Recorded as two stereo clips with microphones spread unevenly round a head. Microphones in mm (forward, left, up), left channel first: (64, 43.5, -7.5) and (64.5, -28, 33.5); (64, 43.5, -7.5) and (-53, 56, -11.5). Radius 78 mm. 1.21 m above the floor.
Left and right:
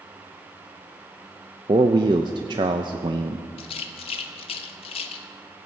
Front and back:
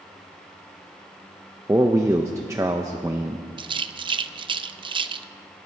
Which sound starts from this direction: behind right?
A man speaking, at 1.7 s.